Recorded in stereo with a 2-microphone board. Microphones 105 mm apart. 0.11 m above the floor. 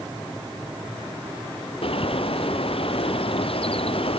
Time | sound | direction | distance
1.8 | a bird | 60° left (ahead or behind) | ?